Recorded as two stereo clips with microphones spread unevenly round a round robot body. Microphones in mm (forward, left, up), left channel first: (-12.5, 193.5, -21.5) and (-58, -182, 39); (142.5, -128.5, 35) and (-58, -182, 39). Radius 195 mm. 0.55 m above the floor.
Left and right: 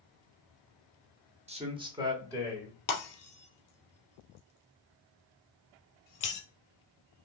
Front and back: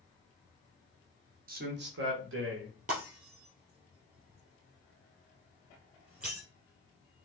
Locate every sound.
1.5 s a man speaking: 175° right, 1.1 m; by 2.8 s 175° left, 2.5 m
2.9 s breaking glass: 125° left, 2.5 m